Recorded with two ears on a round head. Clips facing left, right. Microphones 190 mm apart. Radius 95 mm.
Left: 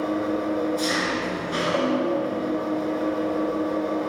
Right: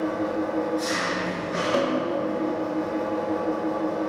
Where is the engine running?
45° left (ahead or behind), 4 m.